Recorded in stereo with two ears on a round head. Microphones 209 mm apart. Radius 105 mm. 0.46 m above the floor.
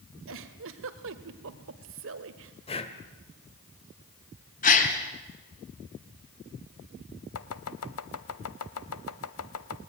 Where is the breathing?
25° left (ahead or behind), 2 m.